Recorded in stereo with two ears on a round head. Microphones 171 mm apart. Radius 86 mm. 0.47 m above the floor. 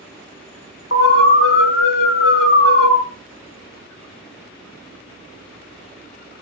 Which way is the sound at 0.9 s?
65° left (ahead or behind).